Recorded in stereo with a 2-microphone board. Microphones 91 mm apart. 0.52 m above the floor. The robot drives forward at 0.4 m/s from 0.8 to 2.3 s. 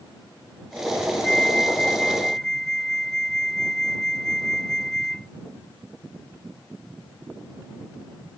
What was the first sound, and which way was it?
A flute, 5° left (ahead or behind).